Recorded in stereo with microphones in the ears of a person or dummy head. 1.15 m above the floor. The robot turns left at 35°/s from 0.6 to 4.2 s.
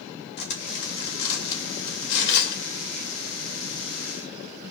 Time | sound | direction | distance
0.4 | cutlery clinking | 50° left (ahead or behind) | 2.5 m